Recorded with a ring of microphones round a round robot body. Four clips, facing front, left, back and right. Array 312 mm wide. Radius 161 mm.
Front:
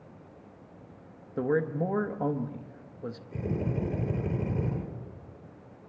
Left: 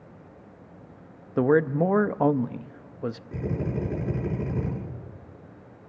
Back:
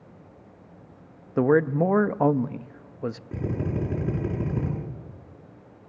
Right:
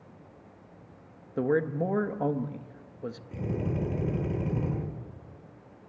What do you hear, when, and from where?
1.4 s a man speaking: 140° left, 0.6 m
3.3 s a drill: 165° left, 9 m